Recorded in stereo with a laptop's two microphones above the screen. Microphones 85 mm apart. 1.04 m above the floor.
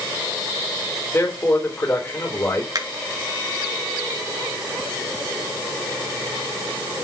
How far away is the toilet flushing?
I don't hear a toilet flushing.